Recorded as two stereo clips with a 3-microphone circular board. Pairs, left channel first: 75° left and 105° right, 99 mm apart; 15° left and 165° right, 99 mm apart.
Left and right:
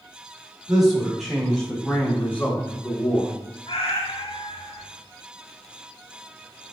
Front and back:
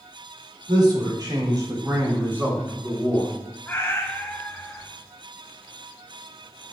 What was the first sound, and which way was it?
A man speaking, 170° left.